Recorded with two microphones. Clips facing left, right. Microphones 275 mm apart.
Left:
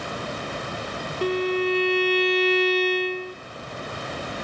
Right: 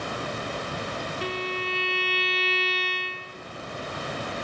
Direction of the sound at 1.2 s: 50° left (ahead or behind).